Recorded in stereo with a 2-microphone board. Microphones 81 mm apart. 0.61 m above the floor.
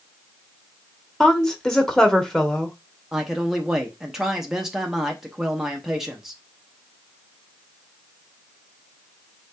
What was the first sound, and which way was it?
A woman speaking, 5° left (ahead or behind).